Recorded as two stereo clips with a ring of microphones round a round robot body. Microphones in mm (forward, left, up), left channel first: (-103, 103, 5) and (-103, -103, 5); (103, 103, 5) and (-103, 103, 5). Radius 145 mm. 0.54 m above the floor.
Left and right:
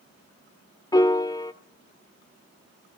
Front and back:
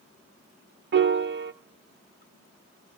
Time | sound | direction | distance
0.9 | a piano | 160° left | 1.2 m